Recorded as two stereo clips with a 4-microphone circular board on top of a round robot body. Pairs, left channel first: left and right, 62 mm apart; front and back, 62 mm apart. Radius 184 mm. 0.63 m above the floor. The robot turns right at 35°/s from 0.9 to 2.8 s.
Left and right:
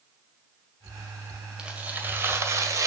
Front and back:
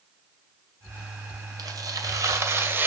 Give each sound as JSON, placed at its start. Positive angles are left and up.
{"t": 1.6, "sound": "tearing paper", "azimuth_deg": -165, "distance_m": 2.0}